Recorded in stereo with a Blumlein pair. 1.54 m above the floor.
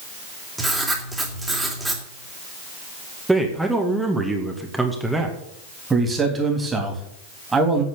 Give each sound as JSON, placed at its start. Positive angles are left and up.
{"t": 0.6, "sound": "writing", "azimuth_deg": -5, "distance_m": 3.0}
{"t": 3.3, "sound": "a man speaking", "azimuth_deg": -5, "distance_m": 2.0}
{"t": 5.9, "sound": "a man speaking", "azimuth_deg": -10, "distance_m": 3.5}